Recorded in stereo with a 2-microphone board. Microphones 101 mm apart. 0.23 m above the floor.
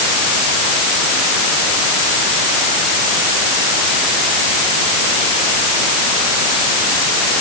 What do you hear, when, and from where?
Only background noise.